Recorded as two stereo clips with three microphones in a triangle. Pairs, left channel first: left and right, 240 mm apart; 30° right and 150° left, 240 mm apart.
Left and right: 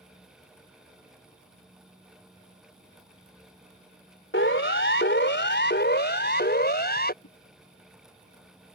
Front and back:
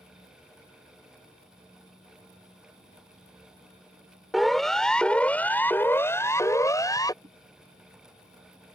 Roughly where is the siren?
Ahead left.